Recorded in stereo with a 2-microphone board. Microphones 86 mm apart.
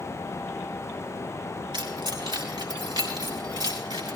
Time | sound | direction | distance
1.7 | keys jangling | 70° right (ahead or behind) | 3.5 m